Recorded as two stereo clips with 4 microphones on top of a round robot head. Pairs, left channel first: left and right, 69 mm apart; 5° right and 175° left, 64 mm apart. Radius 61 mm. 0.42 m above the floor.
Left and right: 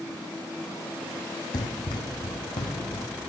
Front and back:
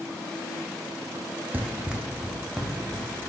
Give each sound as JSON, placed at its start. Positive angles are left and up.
{"t": 1.5, "sound": "running footsteps", "azimuth_deg": 115, "distance_m": 1.1}